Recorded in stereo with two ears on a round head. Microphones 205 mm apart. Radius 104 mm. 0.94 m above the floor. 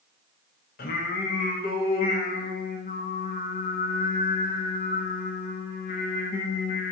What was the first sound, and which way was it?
Singing, 40° left (ahead or behind).